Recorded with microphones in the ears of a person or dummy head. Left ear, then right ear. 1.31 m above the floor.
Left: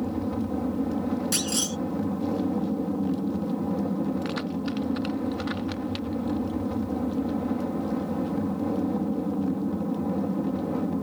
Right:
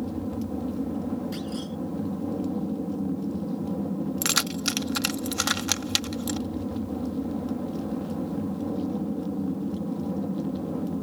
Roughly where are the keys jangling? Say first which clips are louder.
Right 5 dB; right.